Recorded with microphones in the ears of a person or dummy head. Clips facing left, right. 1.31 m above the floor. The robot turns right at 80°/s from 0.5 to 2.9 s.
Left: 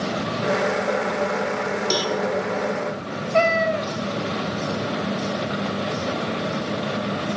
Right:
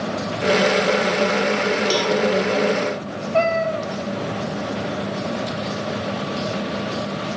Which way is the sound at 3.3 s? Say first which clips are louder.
Even; 15° left (ahead or behind).